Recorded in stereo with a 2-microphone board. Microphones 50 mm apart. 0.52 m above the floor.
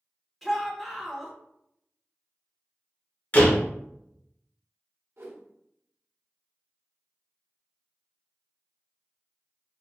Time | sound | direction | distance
0.4 | a shout | centre (ahead or behind) | 1.1 m
3.3 | a door slam | 35° left (ahead or behind) | 1.0 m
5.2 | a whoosh | 65° right (ahead or behind) | 1.0 m